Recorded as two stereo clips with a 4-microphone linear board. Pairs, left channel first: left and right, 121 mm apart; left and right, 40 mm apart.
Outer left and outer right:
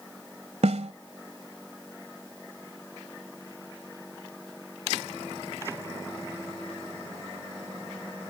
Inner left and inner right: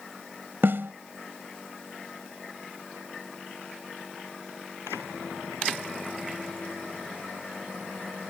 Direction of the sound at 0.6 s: 65° right (ahead or behind).